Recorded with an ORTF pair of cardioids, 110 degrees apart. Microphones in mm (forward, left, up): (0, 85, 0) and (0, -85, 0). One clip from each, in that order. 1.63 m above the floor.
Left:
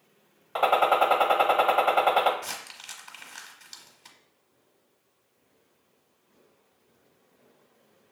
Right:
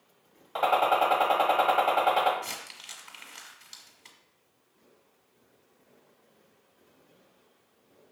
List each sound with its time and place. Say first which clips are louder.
0.6 s a gunshot: left 2 dB; 20° left, 1.0 m
2.4 s crumpling: left 1 dB; 15° left, 1.0 m